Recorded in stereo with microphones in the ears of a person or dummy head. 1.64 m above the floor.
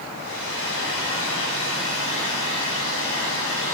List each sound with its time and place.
0.1 s a hair dryer: 65° left (ahead or behind), 7.5 m